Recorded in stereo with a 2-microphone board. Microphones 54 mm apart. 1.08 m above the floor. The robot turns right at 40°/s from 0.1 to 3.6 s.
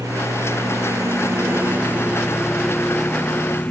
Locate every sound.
0.0 s a lawn mower: 105° right; by 3.7 s 35° left